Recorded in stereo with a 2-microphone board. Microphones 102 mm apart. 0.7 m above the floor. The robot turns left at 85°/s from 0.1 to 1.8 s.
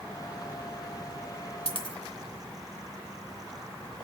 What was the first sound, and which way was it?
A dropped coin, 65° left (ahead or behind).